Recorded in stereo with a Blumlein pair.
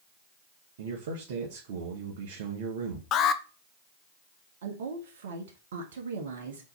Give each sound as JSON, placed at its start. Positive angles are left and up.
{"t": 0.8, "sound": "a man speaking", "azimuth_deg": -55, "distance_m": 1.4}
{"t": 3.1, "sound": "an alarm", "azimuth_deg": 30, "distance_m": 0.7}
{"t": 4.6, "sound": "a woman speaking", "azimuth_deg": -60, "distance_m": 1.4}